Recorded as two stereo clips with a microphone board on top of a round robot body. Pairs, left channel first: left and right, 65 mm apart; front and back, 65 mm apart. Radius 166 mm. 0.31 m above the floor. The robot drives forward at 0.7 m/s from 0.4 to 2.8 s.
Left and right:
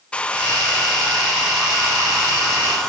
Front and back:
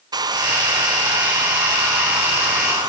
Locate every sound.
0.1 s a hair dryer: 165° left, 0.5 m; by 2.9 s 175° left, 2 m